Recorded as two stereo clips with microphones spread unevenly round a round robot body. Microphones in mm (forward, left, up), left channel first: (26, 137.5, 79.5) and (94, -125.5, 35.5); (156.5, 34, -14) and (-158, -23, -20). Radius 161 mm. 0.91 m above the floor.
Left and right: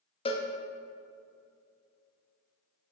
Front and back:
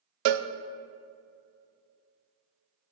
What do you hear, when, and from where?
0.2 s a cowbell: straight behind, 0.6 m